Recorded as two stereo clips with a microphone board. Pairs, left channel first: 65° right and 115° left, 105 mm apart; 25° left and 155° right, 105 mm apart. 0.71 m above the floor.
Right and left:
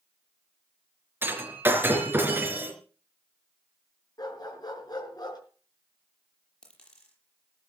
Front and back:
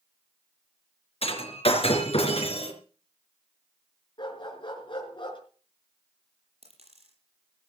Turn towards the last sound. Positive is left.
turn(degrees=-150)